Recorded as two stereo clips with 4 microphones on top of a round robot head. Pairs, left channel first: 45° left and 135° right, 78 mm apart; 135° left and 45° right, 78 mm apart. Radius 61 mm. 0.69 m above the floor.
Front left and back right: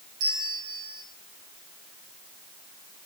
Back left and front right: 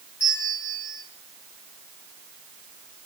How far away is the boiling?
No boiling in this recording.